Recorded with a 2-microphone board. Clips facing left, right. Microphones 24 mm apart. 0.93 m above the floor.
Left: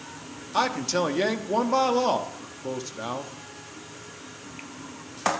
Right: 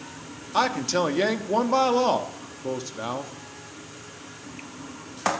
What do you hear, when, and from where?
0.5 s a man speaking: 5° right (ahead or behind), 1.1 m